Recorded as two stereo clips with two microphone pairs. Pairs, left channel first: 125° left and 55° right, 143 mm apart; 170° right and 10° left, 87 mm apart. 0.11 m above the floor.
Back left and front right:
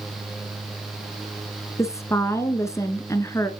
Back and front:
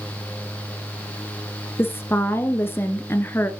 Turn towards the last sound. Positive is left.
turn(degrees=175)